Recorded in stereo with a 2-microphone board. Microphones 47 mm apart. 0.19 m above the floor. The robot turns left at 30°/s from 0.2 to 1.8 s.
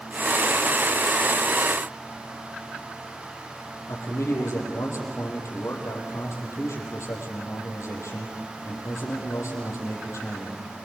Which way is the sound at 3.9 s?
80° left.